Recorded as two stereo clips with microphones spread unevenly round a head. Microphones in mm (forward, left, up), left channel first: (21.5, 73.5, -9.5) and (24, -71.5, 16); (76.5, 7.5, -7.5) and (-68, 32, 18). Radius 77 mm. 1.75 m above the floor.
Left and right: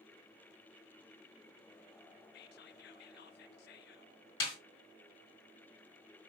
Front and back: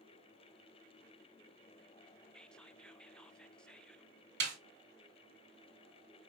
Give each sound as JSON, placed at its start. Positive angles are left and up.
{"t": 2.3, "sound": "whispering", "azimuth_deg": 75, "distance_m": 0.6}
{"t": 4.4, "sound": "a snare drum", "azimuth_deg": 160, "distance_m": 3.0}